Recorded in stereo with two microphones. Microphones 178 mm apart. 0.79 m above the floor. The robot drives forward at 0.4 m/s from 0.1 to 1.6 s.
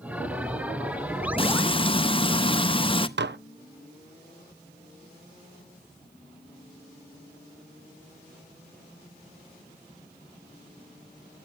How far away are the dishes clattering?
About 0.6 m.